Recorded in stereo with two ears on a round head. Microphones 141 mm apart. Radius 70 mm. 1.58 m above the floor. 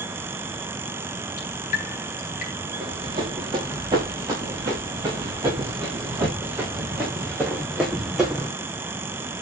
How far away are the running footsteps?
About 7 m.